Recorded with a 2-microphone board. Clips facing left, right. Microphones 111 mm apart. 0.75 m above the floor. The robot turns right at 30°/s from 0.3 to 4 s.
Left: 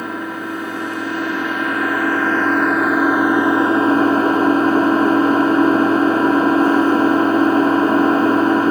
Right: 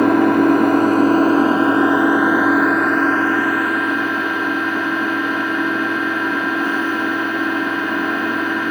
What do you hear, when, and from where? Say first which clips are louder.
0.0 s an engine running: right 13 dB; 75° right, 1.1 m; by 8.7 s 35° left, 1.1 m